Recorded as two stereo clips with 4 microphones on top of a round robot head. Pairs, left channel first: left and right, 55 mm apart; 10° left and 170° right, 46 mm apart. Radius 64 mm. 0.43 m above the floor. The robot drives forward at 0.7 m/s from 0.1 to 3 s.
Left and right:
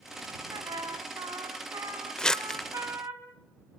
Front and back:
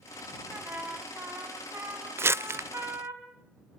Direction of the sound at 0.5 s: 100° right.